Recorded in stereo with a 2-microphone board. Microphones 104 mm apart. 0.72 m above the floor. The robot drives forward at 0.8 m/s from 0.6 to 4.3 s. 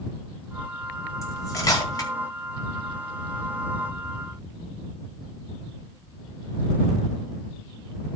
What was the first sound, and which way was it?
Cutlery clinking, 30° left (ahead or behind).